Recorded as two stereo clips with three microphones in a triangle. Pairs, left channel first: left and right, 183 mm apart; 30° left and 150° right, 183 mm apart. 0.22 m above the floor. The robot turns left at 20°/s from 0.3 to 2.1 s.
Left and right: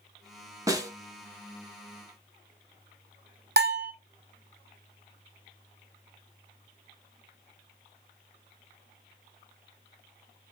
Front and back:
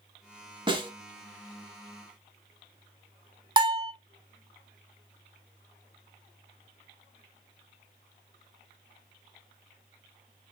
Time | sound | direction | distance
0.7 | a snare drum | 140° right | 0.7 m
3.6 | a bell | 85° right | 0.6 m